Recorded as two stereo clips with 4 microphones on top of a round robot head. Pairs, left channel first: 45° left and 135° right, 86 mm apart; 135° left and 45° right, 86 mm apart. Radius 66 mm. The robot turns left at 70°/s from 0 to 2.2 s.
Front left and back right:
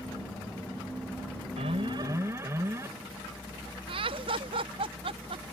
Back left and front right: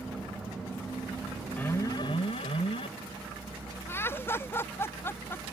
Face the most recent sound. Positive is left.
turn(degrees=-160)